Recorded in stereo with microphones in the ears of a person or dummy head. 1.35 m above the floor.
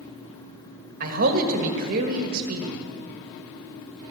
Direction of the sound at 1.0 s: 50° right (ahead or behind).